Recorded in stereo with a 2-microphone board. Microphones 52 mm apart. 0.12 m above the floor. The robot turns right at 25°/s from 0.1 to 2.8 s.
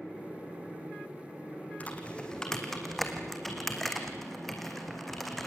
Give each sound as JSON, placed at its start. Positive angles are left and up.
{"t": 1.8, "sound": "typing on a keyboard", "side_deg": 25, "distance_m": 2.5}